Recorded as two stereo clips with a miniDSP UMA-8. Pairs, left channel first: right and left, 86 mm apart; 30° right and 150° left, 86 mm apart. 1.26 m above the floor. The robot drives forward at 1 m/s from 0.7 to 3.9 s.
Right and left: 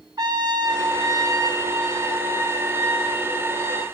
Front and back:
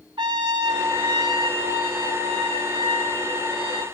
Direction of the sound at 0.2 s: 120° left.